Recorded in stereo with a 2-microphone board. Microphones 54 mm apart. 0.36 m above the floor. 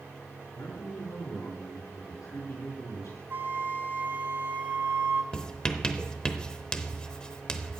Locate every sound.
0.5 s a man speaking: 70° left (ahead or behind), 5 m
3.3 s a flute: 45° right (ahead or behind), 0.9 m
5.3 s writing: 15° left (ahead or behind), 0.8 m